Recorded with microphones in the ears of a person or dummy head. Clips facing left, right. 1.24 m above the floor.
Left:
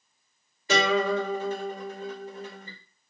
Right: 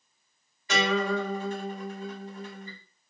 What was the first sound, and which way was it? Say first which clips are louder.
A guitar: left 3 dB; 40° left (ahead or behind).